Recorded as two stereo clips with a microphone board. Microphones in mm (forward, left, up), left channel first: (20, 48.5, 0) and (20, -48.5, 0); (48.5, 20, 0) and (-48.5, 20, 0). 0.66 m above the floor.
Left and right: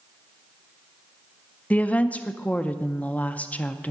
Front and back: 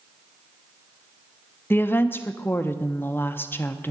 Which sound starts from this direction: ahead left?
A woman speaking, at 1.7 s.